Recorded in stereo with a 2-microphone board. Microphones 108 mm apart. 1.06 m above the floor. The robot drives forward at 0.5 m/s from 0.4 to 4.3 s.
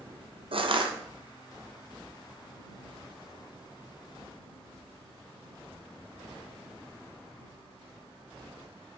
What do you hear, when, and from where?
0.5 s crushing: 60° right (ahead or behind), 0.7 m; by 0.9 s 50° right (ahead or behind), 0.8 m